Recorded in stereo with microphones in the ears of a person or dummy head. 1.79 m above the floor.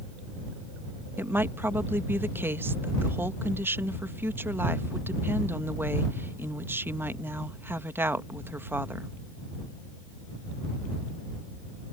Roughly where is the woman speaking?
Centre.